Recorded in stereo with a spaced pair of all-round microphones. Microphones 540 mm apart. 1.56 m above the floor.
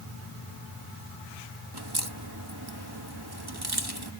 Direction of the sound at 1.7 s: 45° right (ahead or behind).